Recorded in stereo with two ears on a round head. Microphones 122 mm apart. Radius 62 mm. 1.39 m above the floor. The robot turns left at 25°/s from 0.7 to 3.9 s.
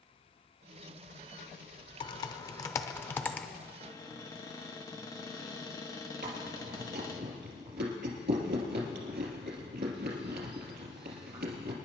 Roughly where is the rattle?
No rattle in this recording.